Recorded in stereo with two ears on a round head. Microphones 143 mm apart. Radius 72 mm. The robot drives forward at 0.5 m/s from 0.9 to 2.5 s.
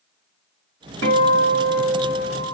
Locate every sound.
1.0 s a guitar: 75° right (ahead or behind), 3.5 m; by 2.5 s 85° right, 3.5 m